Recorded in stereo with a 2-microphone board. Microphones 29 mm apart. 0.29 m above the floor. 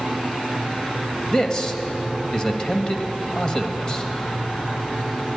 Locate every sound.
1.3 s a man speaking: 25° left (ahead or behind), 1.2 m